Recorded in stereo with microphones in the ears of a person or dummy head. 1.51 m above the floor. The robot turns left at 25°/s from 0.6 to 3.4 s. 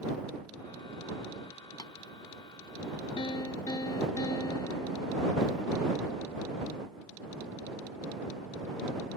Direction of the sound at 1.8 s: 20° left (ahead or behind).